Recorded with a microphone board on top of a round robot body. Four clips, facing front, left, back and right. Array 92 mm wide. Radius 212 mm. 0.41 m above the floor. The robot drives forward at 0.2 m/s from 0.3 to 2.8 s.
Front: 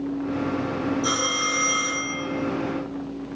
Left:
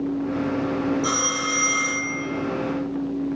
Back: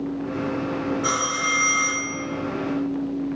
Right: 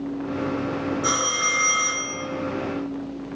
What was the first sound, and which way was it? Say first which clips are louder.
A phone ringing: even, back 1 dB; 135° right.